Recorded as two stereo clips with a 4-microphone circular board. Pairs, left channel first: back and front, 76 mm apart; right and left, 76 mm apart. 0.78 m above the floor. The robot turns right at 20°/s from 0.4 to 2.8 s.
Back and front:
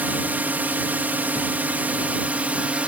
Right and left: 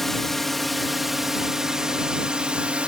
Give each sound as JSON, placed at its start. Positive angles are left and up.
{"t": 0.0, "sound": "a drone", "azimuth_deg": -10}